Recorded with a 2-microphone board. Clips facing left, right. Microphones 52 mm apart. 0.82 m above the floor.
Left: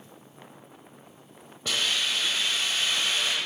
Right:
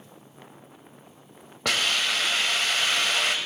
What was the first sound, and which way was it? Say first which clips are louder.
A hiss: right 3 dB; 75° right (ahead or behind).